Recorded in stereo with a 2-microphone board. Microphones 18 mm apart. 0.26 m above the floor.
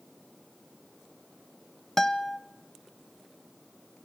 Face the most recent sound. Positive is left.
turn(degrees=25)  # may be behind; listen again after turning